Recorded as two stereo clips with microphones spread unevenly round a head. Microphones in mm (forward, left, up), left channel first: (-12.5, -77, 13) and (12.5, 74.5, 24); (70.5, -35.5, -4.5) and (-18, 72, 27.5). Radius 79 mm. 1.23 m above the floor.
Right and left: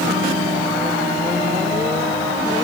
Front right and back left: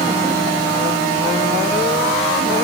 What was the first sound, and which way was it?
Only background noise.